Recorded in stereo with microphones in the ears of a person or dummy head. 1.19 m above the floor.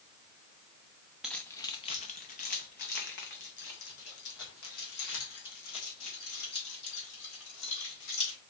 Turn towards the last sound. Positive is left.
turn(degrees=70)  # may be behind; listen again after turning